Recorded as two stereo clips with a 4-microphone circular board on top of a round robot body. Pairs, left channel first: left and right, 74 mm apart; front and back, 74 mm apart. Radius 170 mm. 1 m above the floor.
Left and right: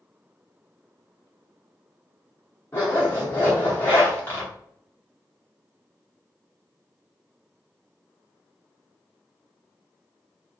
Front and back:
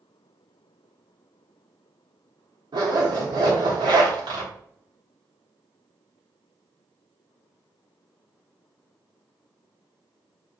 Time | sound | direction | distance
2.7 | a zipper | 160° left | 1.0 m